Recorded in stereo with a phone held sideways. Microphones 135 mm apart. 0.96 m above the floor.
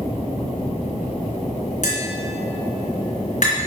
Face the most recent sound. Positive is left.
turn(degrees=65)  # may be behind; listen again after turning